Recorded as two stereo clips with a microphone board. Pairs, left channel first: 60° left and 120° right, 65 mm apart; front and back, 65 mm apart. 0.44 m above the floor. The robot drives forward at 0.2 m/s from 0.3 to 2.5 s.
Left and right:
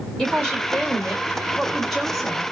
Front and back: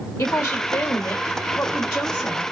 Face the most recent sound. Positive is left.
turn(degrees=-55)